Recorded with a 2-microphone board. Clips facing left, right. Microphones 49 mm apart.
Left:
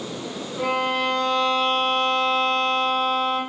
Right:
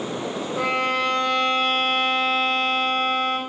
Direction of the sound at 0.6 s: 65° right (ahead or behind).